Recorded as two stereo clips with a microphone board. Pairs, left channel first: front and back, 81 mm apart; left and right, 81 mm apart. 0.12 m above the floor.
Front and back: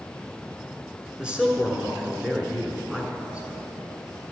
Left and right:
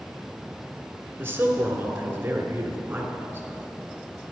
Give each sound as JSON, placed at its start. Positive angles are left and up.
{"t": 1.2, "sound": "a man speaking", "azimuth_deg": -115, "distance_m": 1.3}